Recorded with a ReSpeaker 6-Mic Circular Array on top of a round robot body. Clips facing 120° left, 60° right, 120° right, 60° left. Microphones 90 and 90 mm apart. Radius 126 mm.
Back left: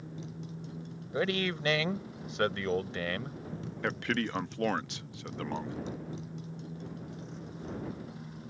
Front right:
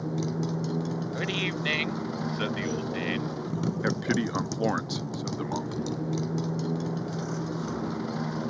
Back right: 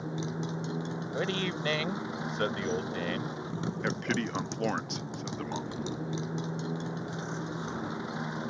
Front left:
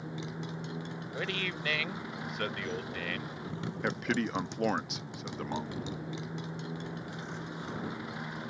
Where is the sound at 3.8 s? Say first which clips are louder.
Front right 2 dB, front left 2 dB; 20° right.